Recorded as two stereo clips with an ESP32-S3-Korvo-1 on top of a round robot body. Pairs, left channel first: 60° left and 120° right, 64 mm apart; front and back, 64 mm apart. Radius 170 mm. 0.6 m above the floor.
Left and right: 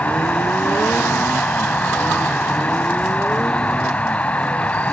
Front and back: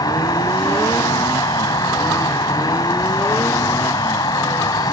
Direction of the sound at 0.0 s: 10° right.